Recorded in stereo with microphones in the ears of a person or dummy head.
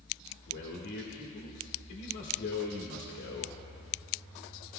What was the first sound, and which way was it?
A man speaking, 60° left (ahead or behind).